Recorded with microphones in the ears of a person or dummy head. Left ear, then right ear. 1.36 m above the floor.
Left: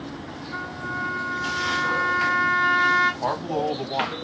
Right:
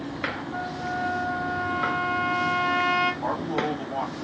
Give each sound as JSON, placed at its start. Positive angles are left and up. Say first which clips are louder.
{"t": 0.5, "sound": "a trumpet", "louder": "even", "side_deg": 60, "distance_m": 1.8}
{"t": 3.2, "sound": "a man speaking", "louder": "left 2 dB", "side_deg": 75, "distance_m": 1.8}